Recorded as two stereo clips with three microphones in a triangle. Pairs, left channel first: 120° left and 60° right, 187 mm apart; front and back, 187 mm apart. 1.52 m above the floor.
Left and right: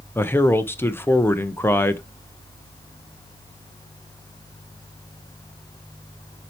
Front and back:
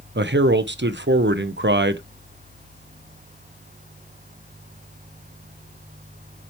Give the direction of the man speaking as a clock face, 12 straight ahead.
5 o'clock.